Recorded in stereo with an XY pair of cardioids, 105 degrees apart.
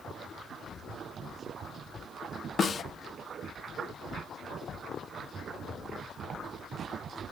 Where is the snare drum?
45° left, 0.8 m.